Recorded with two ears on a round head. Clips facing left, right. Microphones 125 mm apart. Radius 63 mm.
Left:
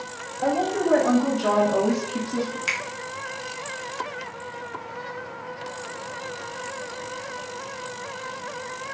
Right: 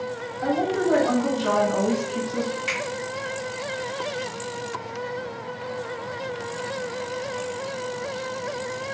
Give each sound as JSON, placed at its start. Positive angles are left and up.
{"t": 0.4, "sound": "a woman speaking", "side_deg": 55, "distance_m": 1.9}
{"t": 2.7, "sound": "a finger snap", "side_deg": 55, "distance_m": 1.2}